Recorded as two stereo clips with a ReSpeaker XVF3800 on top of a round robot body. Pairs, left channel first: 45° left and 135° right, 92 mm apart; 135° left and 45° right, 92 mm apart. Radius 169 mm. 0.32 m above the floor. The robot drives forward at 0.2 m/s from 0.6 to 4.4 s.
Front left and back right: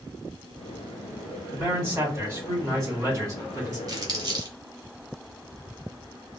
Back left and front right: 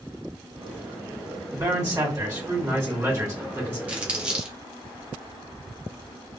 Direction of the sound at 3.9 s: 115° right.